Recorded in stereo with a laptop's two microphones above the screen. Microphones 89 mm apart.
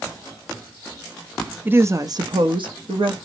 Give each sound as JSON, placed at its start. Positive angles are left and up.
{"t": 1.6, "sound": "a woman speaking", "side_deg": -20, "distance_m": 0.5}